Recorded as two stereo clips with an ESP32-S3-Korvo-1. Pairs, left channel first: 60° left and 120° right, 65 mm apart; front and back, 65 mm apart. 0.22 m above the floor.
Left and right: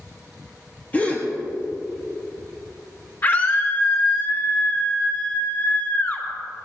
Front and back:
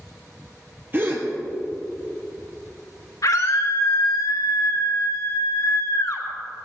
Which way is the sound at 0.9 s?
125° left.